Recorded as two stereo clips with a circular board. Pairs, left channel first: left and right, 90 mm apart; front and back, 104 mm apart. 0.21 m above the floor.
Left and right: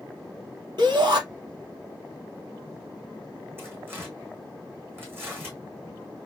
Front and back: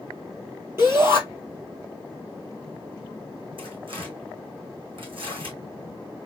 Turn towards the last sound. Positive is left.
turn(degrees=-155)